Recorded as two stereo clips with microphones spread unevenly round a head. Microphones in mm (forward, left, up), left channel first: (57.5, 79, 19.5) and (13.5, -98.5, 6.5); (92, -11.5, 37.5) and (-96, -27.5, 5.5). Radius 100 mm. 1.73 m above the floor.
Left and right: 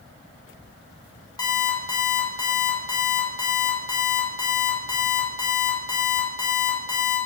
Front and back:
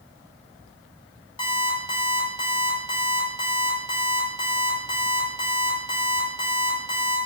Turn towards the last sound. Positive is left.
turn(degrees=30)